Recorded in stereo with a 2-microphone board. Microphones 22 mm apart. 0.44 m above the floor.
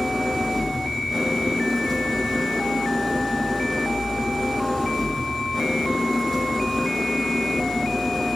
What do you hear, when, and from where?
0.0 s an engine running: 10° left (ahead or behind), 6 m